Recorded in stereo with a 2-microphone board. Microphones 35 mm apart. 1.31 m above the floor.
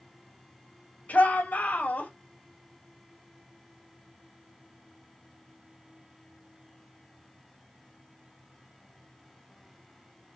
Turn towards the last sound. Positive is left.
turn(degrees=55)  # may be behind; listen again after turning